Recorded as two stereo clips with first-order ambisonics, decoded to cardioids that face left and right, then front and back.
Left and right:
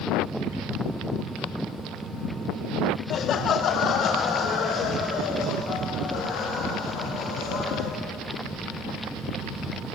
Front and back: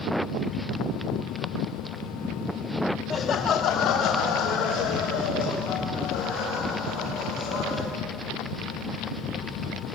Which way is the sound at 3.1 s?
50° left.